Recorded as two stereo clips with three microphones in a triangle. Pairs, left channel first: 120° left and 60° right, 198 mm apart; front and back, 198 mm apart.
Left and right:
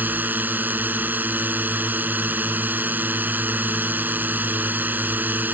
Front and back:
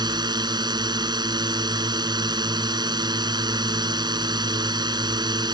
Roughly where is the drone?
Behind right.